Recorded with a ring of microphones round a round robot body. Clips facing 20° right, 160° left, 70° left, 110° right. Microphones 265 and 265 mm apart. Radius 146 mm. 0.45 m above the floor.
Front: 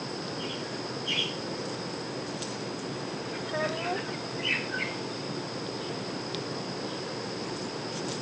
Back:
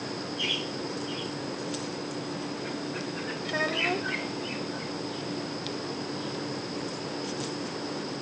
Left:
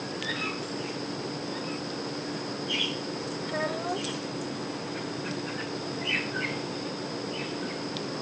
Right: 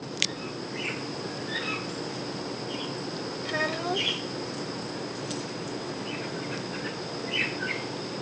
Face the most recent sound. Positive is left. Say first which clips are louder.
# back 2 dB, right 2 dB
turn(degrees=-155)